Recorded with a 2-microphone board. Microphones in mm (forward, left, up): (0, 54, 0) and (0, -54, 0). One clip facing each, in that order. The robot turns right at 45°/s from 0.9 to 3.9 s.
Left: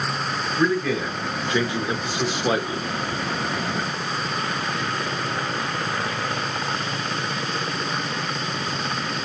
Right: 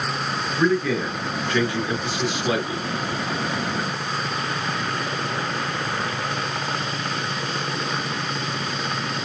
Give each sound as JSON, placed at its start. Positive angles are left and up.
{"t": 0.6, "sound": "a man speaking", "azimuth_deg": 5, "distance_m": 1.0}